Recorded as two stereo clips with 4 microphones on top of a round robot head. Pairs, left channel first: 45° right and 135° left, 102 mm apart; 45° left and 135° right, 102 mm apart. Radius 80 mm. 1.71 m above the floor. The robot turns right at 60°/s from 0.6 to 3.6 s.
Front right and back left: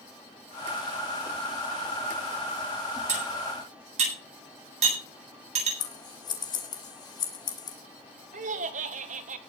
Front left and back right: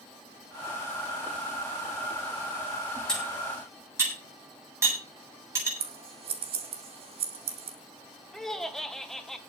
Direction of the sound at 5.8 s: 100° right.